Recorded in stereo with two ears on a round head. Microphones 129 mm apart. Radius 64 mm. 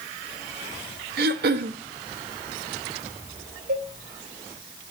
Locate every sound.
1.2 s throat clearing: 75° right (ahead or behind), 1.1 m
3.7 s a cowbell: 70° right (ahead or behind), 4.5 m